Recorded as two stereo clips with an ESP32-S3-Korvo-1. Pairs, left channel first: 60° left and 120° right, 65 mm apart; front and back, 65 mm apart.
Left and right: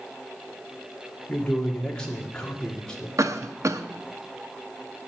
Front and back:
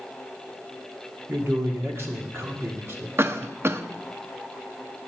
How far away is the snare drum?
I don't hear a snare drum.